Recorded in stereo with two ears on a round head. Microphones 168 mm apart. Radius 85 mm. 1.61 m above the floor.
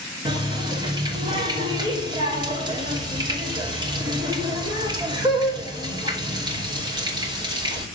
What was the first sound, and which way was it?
A running tap, 25° right (ahead or behind).